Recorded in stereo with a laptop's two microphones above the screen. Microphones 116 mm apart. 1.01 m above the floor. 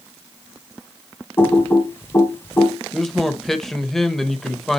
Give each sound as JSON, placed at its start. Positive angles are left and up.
{"t": 1.4, "sound": "typing on a keyboard", "side_deg": 20, "distance_m": 1.8}
{"t": 2.9, "sound": "a man speaking", "side_deg": 5, "distance_m": 1.2}